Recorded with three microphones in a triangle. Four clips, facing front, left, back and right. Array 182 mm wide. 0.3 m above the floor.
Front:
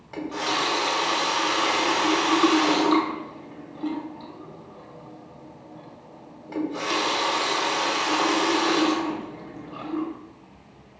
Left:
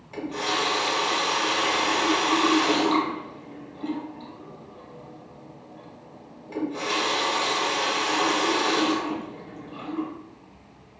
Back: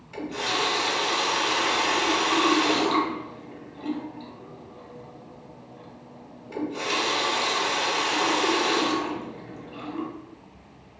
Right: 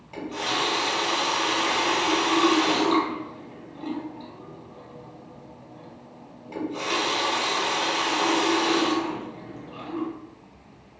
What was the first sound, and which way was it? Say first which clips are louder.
A running tap: left 1 dB, front 2 dB; 5° right.